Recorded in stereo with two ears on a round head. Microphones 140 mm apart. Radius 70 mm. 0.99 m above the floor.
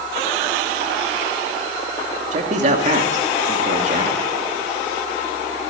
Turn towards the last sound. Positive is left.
turn(degrees=-50)  # may be behind; listen again after turning